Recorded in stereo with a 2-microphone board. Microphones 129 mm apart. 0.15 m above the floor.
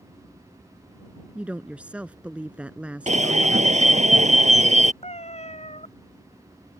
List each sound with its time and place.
1.4 s a woman speaking: 10° right (ahead or behind)
3.1 s an alarm: 65° right (ahead or behind)
5.0 s a cat meowing: 55° left (ahead or behind)